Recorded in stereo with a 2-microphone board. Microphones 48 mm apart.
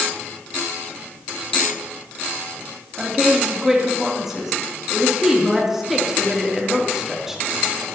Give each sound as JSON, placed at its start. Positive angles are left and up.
{"t": 3.0, "sound": "a woman speaking", "side_deg": -5, "distance_m": 3.0}